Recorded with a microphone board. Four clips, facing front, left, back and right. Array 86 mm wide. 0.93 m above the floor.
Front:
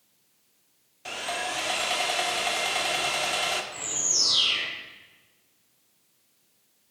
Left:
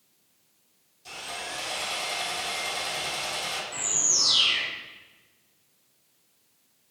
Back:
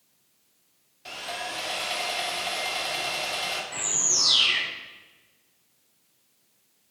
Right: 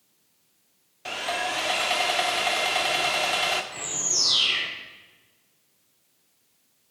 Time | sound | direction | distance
1.1 | sawing | 75° right | 1.4 m
3.7 | a bird | 170° right | 4 m